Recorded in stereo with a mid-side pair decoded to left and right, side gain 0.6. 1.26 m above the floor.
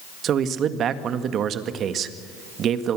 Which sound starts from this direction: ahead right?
A man speaking, at 0.2 s.